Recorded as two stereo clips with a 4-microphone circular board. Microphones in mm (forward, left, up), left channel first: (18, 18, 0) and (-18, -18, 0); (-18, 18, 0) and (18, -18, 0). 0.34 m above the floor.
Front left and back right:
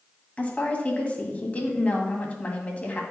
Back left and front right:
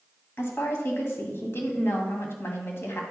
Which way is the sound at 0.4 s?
105° left.